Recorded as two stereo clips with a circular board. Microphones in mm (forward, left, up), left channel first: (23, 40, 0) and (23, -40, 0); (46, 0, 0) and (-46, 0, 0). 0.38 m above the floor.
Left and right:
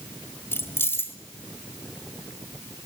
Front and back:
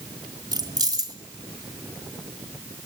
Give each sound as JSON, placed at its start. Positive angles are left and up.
{"t": 0.5, "sound": "keys jangling", "azimuth_deg": 145, "distance_m": 1.5}